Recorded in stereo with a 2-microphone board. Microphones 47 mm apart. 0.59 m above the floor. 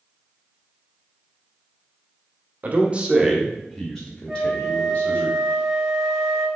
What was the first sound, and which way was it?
A man speaking, 40° right (ahead or behind).